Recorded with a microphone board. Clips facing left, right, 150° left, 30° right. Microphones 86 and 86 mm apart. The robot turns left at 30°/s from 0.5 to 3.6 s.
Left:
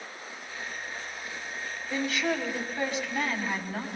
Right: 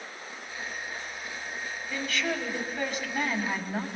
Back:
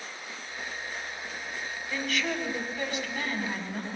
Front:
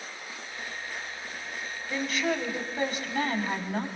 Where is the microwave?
No microwave in this recording.